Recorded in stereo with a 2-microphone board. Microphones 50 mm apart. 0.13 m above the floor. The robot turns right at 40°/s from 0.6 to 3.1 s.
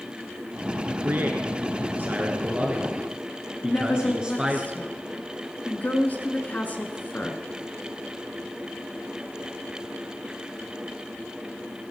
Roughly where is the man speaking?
Right.